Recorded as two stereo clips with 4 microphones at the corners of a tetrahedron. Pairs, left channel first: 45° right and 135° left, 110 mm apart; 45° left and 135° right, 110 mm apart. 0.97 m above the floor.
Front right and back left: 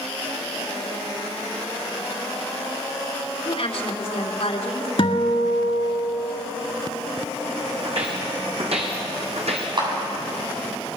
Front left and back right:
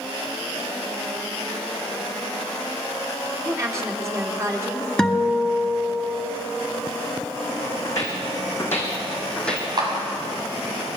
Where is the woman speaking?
75° right, 3 m.